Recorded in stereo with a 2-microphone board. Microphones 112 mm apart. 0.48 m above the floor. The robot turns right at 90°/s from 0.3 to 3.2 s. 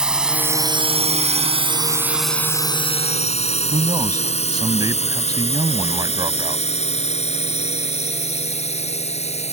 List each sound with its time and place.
0.0 s a drone: 10° right (ahead or behind); by 9.5 s 80° left
3.7 s a man speaking: 35° right (ahead or behind)